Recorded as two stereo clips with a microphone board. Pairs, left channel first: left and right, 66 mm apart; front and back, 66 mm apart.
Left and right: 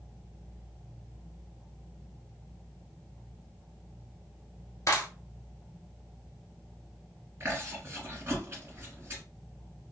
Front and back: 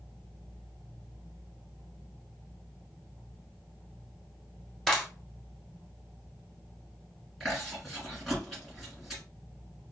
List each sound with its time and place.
4.9 s a clap: 90° left, 1.2 m
7.4 s chewing: 90° right, 2.0 m